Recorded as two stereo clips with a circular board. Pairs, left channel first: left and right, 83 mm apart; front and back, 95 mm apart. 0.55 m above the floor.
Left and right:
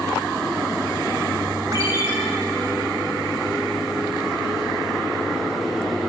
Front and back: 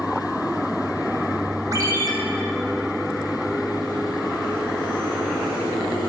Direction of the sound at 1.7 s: 130° right.